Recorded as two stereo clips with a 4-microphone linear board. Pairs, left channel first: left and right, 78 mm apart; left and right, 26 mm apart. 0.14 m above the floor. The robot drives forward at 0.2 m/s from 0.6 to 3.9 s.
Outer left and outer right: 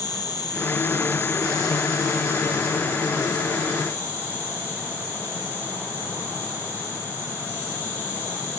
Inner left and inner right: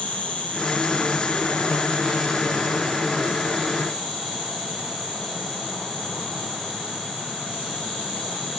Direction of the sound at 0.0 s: 60° left (ahead or behind).